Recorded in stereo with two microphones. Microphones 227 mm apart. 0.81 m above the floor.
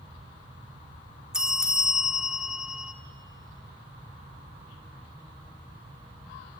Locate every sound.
1.3 s a bell: 5° right (ahead or behind), 1.2 m